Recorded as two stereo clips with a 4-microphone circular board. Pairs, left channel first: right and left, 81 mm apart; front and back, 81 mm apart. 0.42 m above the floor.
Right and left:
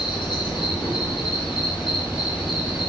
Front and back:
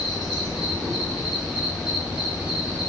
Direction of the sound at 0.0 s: 95° right.